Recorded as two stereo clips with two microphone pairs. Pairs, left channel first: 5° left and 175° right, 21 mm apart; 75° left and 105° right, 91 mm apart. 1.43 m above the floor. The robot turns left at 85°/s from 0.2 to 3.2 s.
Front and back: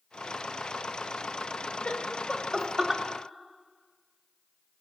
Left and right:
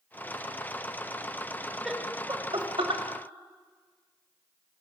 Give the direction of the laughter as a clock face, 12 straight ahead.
12 o'clock.